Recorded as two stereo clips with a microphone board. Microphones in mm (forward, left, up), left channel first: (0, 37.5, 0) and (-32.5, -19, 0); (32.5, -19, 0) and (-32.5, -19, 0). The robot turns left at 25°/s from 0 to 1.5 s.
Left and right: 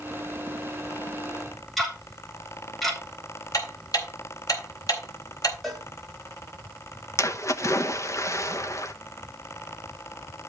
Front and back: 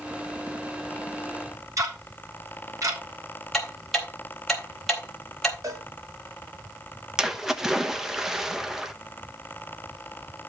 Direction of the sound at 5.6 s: 150° left.